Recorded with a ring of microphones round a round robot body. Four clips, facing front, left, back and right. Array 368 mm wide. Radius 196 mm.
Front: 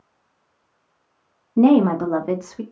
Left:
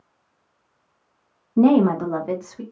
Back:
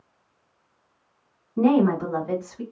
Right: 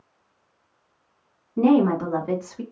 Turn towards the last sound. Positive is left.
turn(degrees=-10)